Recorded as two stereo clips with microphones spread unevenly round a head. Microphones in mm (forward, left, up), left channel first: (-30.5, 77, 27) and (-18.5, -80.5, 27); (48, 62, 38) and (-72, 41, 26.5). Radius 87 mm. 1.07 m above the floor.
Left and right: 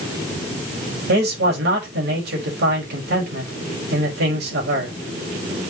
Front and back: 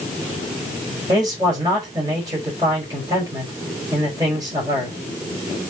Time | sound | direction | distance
1.1 | a man speaking | 100° right | 5 m